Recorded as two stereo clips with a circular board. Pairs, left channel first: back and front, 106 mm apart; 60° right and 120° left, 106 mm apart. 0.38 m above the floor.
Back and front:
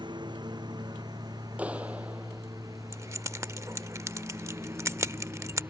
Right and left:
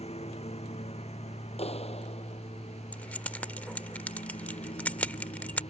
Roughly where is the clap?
Right.